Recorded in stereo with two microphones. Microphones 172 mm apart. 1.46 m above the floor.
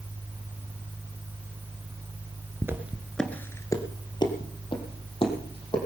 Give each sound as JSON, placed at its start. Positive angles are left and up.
{"t": 2.6, "sound": "footsteps", "side_deg": -15, "distance_m": 1.5}